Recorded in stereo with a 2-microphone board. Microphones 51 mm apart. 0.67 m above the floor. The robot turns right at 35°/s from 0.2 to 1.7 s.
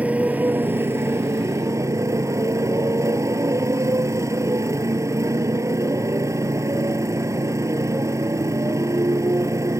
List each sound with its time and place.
0.0 s a motorcycle: 150° right; by 9.8 s 100° right